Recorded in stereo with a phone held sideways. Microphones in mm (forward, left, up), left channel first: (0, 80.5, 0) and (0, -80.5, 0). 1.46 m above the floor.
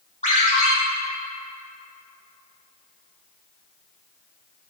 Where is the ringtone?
45° left (ahead or behind), 1.9 m.